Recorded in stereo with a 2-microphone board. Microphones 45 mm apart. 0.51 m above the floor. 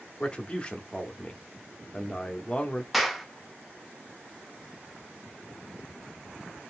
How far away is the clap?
About 0.6 m.